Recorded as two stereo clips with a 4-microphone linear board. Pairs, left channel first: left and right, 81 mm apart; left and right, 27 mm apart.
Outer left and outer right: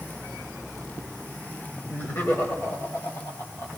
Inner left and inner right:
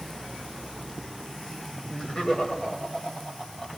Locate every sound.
1.9 s laughter: 25° left (ahead or behind), 1.7 m; by 3.7 s 35° left (ahead or behind), 2 m